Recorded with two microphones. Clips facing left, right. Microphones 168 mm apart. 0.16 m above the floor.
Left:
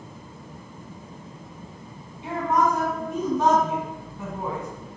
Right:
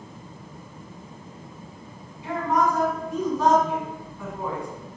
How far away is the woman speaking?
About 1.5 m.